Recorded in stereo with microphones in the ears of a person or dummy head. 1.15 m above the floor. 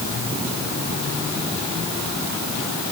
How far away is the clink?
I don't hear a clink.